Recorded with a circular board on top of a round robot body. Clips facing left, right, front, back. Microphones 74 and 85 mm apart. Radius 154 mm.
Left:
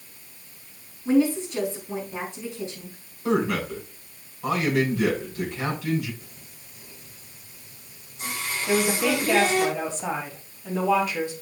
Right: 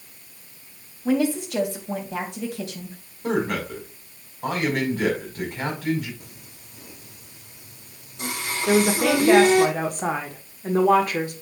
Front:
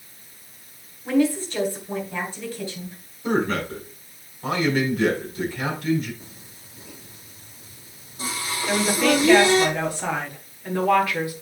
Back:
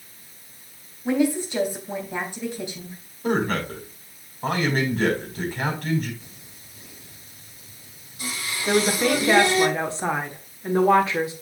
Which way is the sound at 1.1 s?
105° right.